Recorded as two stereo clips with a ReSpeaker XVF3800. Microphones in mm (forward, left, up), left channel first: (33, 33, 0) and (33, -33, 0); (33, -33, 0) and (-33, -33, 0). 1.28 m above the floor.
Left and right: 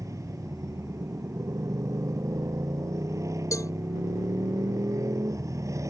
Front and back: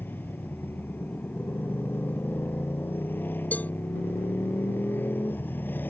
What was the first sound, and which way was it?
A motorcycle, 60° right.